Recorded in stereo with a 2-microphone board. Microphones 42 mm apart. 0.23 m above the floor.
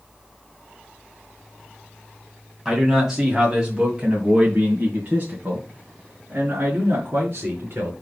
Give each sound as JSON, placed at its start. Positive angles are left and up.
{"t": 2.6, "sound": "a man speaking", "side_deg": -10, "distance_m": 2.0}